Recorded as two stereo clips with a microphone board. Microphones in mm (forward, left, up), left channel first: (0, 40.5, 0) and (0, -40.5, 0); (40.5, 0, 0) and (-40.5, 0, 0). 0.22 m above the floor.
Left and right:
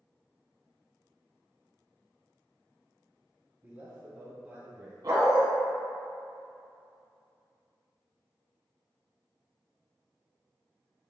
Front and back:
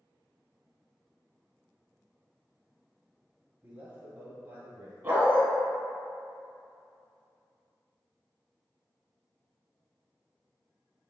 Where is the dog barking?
125° right, 0.7 m.